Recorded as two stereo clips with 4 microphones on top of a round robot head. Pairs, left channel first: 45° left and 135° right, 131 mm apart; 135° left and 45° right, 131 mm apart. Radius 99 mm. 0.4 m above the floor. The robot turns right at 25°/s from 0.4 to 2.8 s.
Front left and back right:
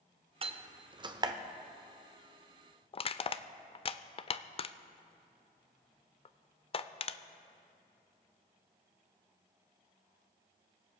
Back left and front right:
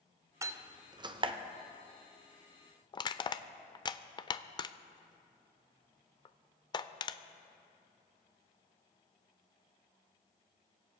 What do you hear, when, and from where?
0.4 s a door slam: 105° right, 0.9 m; by 1.3 s 85° right, 0.9 m
2.9 s crushing: 85° left, 0.6 m